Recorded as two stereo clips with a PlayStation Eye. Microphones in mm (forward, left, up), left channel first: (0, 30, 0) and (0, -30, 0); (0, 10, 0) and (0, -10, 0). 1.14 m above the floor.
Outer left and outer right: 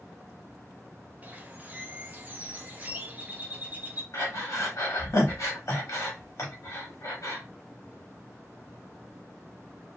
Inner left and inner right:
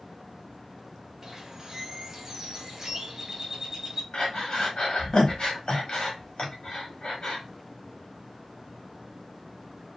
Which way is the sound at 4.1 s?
65° left (ahead or behind).